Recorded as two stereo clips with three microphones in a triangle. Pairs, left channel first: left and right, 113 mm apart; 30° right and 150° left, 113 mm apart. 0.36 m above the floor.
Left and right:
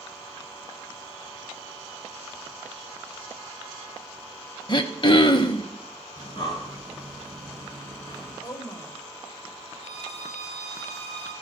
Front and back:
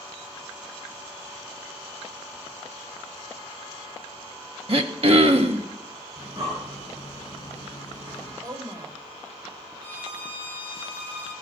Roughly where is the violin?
Left.